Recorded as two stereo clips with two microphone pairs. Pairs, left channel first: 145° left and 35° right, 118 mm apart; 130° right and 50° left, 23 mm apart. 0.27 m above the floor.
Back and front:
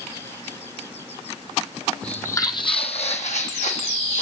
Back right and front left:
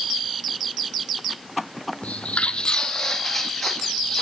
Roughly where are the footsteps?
Behind right.